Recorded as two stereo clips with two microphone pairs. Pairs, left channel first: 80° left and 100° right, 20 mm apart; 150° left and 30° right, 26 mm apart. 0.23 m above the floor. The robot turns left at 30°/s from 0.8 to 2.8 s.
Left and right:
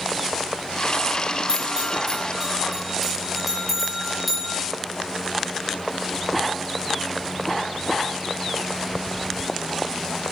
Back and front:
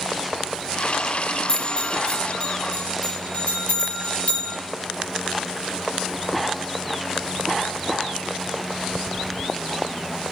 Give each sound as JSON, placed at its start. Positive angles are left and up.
{"t": 1.5, "sound": "a bell", "azimuth_deg": -150, "distance_m": 4.0}